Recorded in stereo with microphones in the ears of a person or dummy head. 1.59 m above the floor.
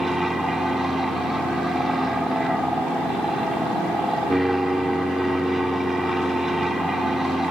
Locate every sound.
0.0 s an aircraft: centre (ahead or behind)